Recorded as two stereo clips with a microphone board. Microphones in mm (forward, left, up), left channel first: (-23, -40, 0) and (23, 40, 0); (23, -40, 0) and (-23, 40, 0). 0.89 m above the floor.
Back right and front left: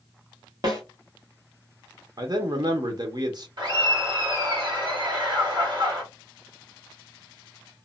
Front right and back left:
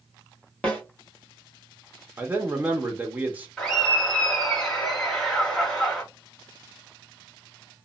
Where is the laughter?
25° left, 1.8 m.